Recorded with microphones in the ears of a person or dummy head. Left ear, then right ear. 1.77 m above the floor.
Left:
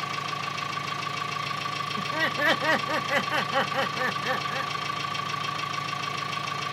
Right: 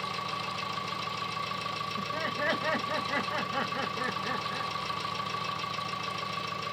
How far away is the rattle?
No rattle in this recording.